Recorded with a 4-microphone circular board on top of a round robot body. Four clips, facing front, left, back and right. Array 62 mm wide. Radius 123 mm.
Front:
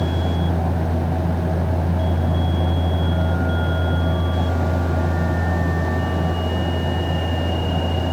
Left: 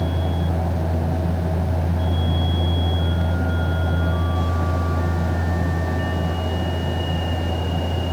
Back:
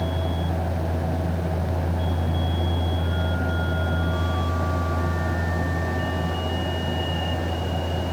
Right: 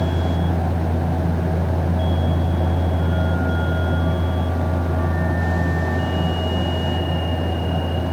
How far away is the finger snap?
I don't hear a finger snap.